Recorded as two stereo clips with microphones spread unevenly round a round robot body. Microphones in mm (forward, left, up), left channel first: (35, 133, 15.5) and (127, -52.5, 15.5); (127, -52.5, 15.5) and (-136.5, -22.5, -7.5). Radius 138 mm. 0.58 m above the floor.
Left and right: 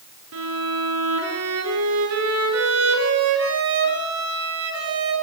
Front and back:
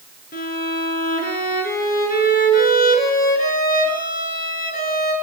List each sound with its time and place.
0.3 s a violin: 65° right, 7 m